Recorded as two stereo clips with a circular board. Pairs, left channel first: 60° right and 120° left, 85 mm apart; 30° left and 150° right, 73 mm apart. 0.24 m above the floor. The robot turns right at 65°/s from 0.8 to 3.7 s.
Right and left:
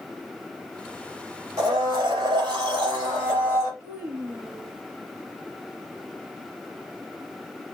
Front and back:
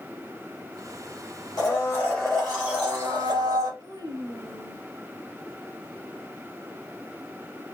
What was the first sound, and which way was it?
A blender, 65° left.